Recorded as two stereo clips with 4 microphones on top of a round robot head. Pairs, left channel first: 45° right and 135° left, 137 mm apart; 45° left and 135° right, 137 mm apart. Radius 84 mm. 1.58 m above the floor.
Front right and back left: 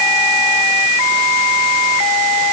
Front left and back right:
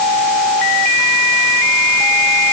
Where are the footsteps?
No footsteps in this recording.